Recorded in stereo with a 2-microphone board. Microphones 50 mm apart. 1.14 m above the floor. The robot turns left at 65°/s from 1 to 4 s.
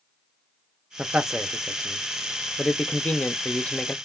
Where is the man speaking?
20° right (ahead or behind), 0.5 m; by 4.0 s 15° left (ahead or behind), 0.5 m.